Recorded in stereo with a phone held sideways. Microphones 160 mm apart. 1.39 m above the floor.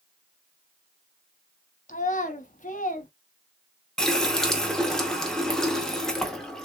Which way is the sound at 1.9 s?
50° left (ahead or behind).